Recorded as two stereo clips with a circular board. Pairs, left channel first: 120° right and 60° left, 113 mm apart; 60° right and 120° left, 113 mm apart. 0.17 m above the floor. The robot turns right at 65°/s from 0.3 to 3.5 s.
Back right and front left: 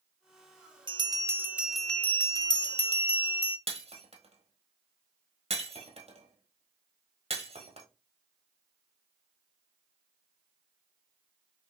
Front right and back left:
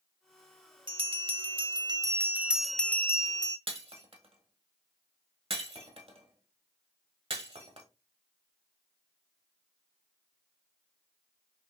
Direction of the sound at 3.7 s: 90° left.